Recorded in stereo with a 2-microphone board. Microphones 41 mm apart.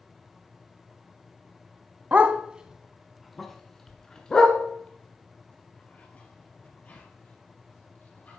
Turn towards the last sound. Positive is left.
turn(degrees=40)  # may be behind; listen again after turning